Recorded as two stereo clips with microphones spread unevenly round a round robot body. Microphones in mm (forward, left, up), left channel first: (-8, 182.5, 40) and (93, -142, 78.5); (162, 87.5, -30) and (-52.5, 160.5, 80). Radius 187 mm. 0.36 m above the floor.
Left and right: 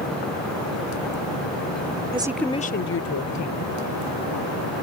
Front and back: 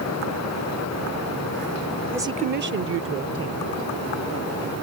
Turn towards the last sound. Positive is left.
turn(degrees=135)